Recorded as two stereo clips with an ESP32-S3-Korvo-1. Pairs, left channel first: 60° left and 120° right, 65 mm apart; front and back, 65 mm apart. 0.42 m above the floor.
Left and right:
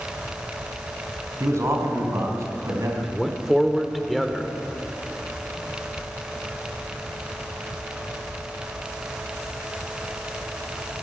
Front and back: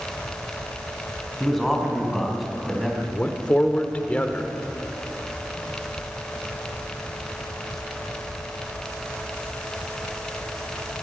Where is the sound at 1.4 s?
85° right, 3 m.